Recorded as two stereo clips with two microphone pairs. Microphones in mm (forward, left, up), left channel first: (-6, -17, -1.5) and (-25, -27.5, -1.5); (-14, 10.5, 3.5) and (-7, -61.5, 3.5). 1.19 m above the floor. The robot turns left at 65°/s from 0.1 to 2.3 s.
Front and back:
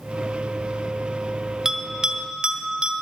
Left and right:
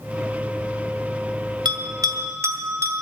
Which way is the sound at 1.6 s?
90° right.